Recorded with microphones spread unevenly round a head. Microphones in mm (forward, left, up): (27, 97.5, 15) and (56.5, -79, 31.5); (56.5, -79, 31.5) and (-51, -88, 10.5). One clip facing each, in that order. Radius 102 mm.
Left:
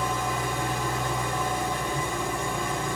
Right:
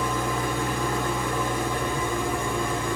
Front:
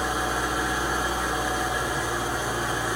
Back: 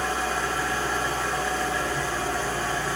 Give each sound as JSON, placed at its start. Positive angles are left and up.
{"t": 0.0, "sound": "an engine running", "azimuth_deg": -70, "distance_m": 2.5}